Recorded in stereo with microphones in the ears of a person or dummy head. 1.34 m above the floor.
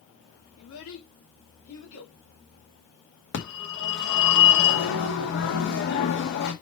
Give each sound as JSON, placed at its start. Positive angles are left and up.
{"t": 0.6, "sound": "a child speaking", "side_deg": 85, "distance_m": 2.0}
{"t": 3.3, "sound": "a phone ringing", "side_deg": 65, "distance_m": 1.9}